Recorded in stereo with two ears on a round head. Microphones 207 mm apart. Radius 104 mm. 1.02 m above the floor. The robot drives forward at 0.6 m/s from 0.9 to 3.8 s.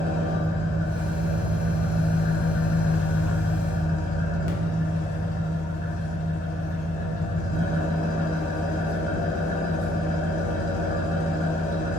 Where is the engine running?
20° left (ahead or behind), 1.2 m; by 12.0 s 35° left (ahead or behind), 0.8 m.